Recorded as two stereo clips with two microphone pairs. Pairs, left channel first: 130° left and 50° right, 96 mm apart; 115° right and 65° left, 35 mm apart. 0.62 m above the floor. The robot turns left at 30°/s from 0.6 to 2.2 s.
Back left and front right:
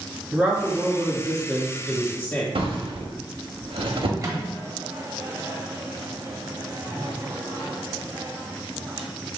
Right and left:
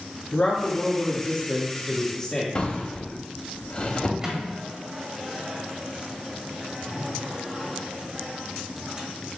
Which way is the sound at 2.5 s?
65° right.